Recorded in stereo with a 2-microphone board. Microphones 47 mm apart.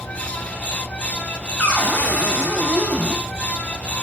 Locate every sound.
1.6 s a cupboard door: 25° left (ahead or behind), 5.5 m